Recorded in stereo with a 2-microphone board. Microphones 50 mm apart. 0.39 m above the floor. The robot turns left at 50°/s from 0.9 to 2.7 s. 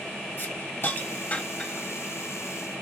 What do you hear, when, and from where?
0.4 s a hiss: 45° left (ahead or behind), 1.3 m; by 1.9 s 5° left (ahead or behind), 1.3 m